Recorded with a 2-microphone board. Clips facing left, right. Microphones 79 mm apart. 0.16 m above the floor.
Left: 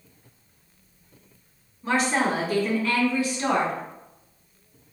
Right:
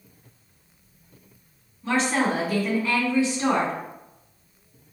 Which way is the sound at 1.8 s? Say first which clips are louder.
Even; 15° left (ahead or behind).